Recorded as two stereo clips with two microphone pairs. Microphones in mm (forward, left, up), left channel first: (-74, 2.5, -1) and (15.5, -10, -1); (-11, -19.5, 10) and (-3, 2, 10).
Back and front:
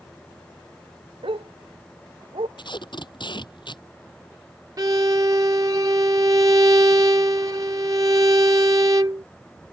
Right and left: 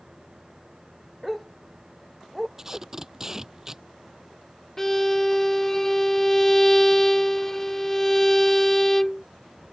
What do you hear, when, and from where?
1.2 s a dog barking: 20° right; by 2.5 s 15° right
2.6 s tape being pulled: 140° left
4.8 s a violin: 45° right